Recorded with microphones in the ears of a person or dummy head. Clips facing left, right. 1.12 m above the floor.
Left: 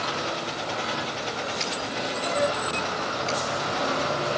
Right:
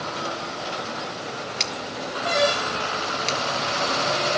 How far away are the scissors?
About 0.7 m.